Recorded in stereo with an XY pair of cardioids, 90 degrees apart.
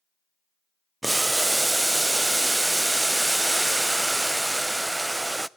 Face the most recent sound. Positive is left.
turn(degrees=-15)